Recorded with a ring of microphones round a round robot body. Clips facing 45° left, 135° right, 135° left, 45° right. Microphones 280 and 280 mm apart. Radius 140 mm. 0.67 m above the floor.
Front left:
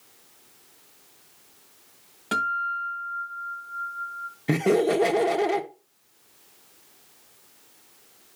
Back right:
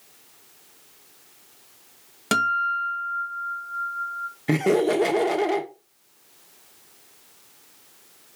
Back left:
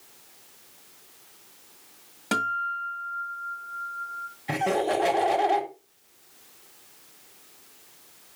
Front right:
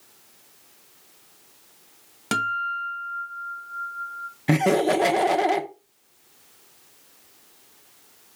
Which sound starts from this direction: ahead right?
Laughter, at 4.5 s.